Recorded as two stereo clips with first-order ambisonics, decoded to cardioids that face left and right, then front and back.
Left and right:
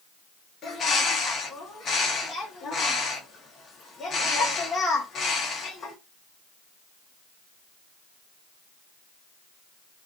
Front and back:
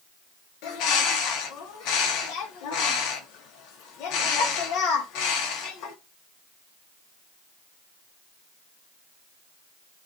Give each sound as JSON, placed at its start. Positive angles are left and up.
{"t": 0.6, "sound": "a bird", "azimuth_deg": 25, "distance_m": 0.7}